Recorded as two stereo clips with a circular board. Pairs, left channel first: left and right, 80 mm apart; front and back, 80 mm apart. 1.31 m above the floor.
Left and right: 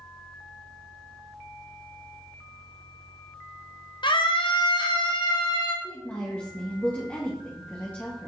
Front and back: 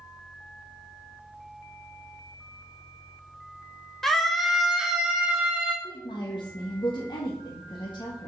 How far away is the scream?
About 1.1 m.